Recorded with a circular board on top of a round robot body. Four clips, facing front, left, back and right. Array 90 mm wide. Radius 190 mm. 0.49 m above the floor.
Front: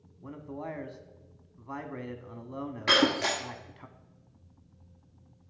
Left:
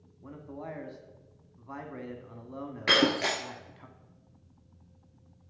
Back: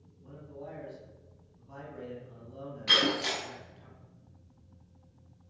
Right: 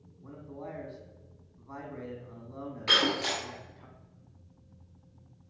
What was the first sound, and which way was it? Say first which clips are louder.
A man speaking: left 1 dB, front 6 dB; 20° left.